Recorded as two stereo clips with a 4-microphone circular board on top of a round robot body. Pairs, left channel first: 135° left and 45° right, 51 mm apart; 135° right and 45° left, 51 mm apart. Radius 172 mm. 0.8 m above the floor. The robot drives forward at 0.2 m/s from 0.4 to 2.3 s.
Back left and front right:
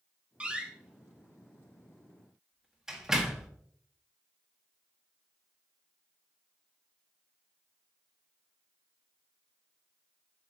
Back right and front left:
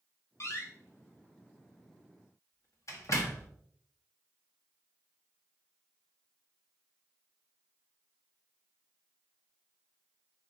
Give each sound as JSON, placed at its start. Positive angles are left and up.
{"t": 0.4, "sound": "a door slam", "azimuth_deg": -115, "distance_m": 1.4}